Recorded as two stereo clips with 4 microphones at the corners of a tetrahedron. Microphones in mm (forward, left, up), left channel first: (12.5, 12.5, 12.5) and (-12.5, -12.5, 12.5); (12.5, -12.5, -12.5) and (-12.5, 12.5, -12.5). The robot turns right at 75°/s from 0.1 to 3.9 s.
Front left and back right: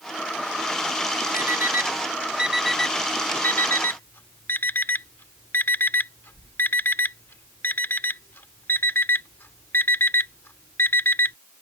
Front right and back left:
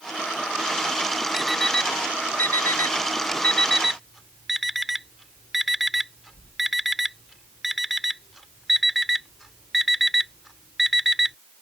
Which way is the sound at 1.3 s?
145° right.